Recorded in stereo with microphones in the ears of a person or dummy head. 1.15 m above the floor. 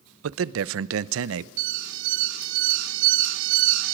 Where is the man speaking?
75° right (ahead or behind), 0.7 m.